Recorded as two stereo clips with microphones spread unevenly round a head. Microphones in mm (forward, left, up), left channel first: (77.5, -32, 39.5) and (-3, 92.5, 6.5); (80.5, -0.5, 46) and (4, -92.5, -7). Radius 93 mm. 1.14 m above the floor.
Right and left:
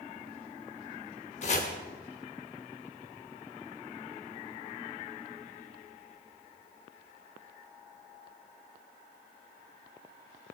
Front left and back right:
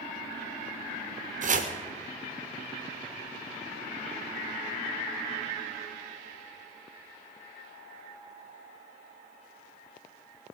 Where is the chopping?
105° right, 1.4 m.